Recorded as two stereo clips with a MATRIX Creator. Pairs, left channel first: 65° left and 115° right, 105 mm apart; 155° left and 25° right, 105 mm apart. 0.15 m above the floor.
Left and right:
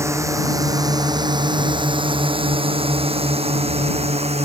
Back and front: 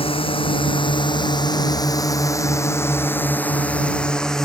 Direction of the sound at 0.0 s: 175° right.